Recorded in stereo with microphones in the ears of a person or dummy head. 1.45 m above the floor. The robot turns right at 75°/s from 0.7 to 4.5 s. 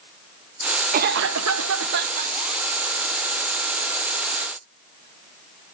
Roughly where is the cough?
Behind right.